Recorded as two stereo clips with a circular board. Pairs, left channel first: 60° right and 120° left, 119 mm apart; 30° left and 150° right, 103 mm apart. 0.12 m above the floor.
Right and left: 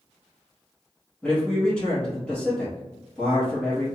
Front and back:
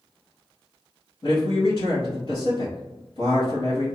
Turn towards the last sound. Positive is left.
turn(degrees=20)